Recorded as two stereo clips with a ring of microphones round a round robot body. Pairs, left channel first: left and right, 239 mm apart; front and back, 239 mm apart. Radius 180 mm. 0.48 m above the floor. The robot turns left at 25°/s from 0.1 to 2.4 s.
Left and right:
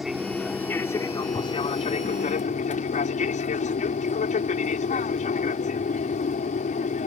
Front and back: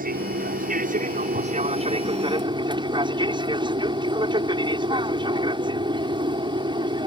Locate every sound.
0.0 s an aircraft: straight behind; by 7.1 s 125° left